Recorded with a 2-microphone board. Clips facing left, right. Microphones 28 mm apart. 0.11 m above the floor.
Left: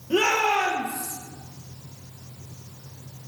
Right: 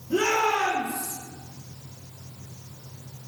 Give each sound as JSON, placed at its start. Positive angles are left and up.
{"t": 0.1, "sound": "a shout", "side_deg": 55, "distance_m": 1.9}